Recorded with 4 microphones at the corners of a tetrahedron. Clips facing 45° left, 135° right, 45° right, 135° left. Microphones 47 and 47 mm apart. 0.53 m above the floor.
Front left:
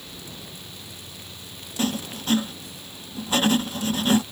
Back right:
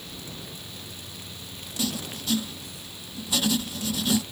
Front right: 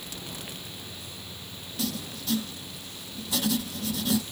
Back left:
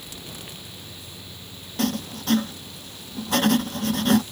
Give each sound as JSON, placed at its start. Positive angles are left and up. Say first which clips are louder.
{"t": 1.8, "sound": "writing", "louder": "front left 4 dB, back left 7 dB", "azimuth_deg": 95}